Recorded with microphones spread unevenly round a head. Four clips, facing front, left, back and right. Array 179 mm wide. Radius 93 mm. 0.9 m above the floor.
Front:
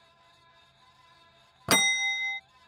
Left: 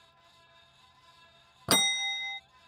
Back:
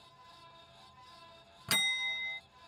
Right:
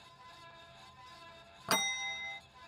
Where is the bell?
45° left.